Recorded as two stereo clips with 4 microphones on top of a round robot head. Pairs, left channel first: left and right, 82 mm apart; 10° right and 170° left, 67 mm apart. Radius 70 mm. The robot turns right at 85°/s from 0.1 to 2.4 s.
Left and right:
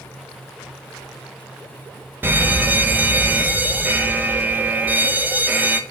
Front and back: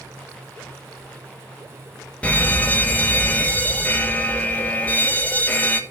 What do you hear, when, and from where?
2.2 s a fire alarm: 60° right, 1.4 m; by 5.8 s 45° right, 1.4 m